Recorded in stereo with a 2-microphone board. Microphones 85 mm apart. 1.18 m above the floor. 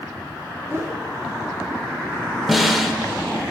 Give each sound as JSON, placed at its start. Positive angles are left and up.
{"t": 0.7, "sound": "a whoosh", "side_deg": -35, "distance_m": 2.0}
{"t": 2.5, "sound": "a snare drum", "side_deg": 0, "distance_m": 1.3}